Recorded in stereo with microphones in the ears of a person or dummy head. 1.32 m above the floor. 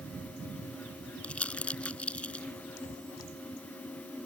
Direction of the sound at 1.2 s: 5° left (ahead or behind).